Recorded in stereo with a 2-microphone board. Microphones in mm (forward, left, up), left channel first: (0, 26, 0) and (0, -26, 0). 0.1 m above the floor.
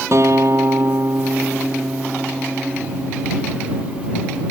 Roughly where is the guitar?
Right.